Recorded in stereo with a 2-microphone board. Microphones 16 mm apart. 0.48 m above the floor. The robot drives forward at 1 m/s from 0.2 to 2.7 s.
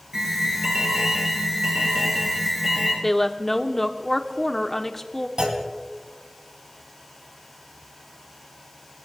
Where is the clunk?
70° right (ahead or behind), 3 m.